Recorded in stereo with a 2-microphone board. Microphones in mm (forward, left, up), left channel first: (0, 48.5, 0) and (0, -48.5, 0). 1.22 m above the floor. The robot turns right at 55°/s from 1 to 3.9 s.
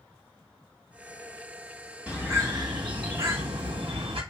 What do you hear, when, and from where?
2.1 s a bird: 170° right, 1.7 m; by 4.2 s 65° right, 1.7 m